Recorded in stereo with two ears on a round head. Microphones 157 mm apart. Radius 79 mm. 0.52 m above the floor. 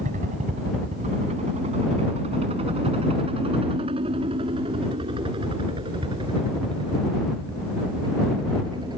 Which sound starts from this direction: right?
A helicopter, at 0.0 s.